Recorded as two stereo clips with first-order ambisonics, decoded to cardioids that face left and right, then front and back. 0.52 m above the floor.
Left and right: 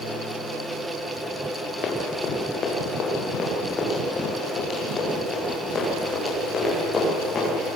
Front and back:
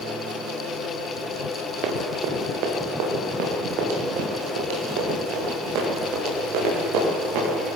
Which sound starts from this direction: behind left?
Running footsteps, at 1.8 s.